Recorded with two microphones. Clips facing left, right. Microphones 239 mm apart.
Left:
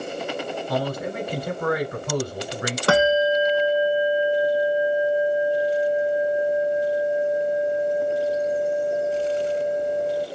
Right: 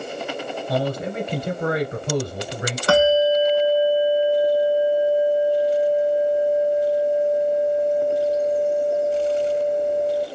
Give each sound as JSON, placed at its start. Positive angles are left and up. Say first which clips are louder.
{"t": 0.7, "sound": "a man speaking", "louder": "right 3 dB", "side_deg": -25, "distance_m": 1.3}
{"t": 2.9, "sound": "a bell", "louder": "right 3 dB", "side_deg": 70, "distance_m": 1.9}